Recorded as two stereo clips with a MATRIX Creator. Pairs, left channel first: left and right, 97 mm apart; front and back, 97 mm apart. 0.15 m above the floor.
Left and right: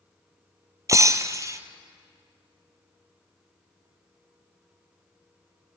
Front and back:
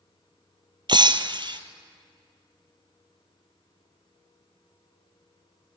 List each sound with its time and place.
0.9 s breaking glass: 145° right, 1.2 m